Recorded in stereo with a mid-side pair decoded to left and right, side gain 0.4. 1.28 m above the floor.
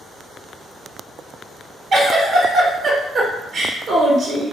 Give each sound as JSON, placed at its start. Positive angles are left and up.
{"t": 1.9, "sound": "a giggle", "azimuth_deg": -55, "distance_m": 0.9}